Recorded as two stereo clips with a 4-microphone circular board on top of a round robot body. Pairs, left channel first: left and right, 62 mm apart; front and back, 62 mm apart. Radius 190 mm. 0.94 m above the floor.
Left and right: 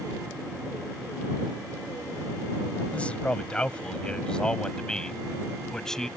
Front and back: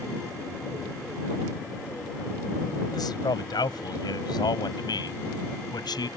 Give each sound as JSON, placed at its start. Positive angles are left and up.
{"t": 2.9, "sound": "a man speaking", "azimuth_deg": 20}